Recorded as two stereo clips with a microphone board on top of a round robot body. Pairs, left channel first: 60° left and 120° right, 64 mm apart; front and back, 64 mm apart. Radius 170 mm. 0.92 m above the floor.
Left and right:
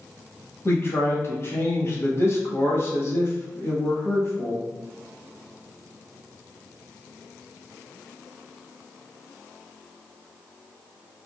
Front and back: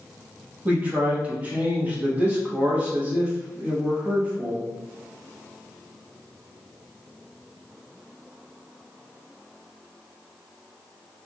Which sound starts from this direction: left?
A man speaking, at 0.7 s.